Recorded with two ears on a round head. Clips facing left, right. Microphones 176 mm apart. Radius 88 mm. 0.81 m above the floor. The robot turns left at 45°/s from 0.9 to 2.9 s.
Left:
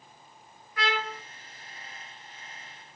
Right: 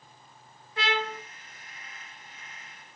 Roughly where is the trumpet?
Right.